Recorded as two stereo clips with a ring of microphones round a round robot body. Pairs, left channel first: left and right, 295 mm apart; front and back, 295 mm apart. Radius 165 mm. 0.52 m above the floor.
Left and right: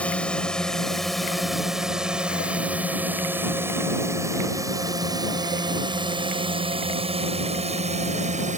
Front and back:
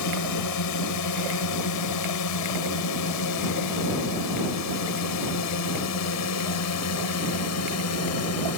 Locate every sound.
0.0 s a drone: 5° left; by 8.6 s 25° right